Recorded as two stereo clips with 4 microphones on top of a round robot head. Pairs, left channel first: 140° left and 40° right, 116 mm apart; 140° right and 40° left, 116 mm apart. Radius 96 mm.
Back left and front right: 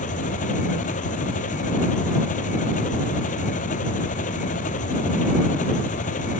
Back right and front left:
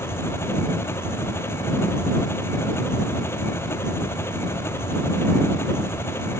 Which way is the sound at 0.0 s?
150° left.